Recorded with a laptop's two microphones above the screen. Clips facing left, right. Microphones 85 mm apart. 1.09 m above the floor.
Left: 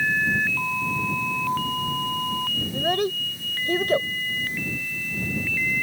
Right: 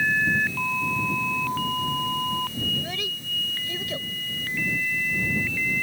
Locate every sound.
2.7 s a child speaking: 50° left (ahead or behind)